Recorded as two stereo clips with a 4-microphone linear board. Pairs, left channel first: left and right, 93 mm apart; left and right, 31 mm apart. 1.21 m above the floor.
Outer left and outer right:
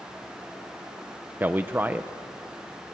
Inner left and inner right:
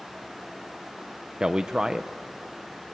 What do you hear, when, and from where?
1.4 s a man speaking: 20° right (ahead or behind), 0.7 m